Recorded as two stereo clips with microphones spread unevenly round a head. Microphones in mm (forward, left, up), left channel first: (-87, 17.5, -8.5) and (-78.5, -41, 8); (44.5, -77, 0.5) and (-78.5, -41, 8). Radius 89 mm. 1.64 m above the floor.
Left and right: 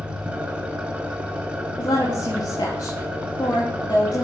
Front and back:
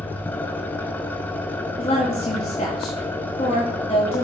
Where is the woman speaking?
45° left, 3.5 m.